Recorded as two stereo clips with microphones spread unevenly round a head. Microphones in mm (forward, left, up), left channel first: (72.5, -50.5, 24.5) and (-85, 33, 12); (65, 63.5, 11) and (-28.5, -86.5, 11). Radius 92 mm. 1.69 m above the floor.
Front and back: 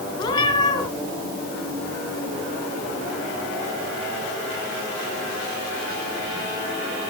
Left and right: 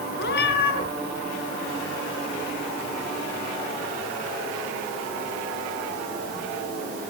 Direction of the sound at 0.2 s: 40° left.